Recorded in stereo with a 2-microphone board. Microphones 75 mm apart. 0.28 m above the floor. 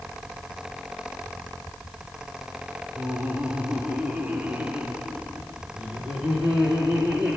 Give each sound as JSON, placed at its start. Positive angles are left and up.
{"t": 3.0, "sound": "laughter", "side_deg": -20, "distance_m": 1.4}